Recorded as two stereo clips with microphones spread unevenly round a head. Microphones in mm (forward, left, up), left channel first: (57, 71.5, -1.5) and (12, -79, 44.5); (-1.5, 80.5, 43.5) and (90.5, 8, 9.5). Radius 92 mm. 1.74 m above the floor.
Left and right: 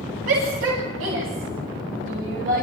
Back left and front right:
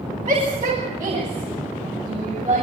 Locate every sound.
0.3 s a shout: 115° right, 9.5 m; by 2.6 s 120° right, 8 m